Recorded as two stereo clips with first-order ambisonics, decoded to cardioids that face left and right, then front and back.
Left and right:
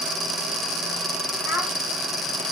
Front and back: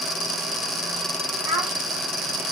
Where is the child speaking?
155° left, 4.5 m.